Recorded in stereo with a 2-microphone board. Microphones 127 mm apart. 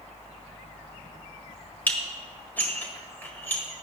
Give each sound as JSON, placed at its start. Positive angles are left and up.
{"t": 1.9, "sound": "dishes clattering", "side_deg": 15, "distance_m": 1.5}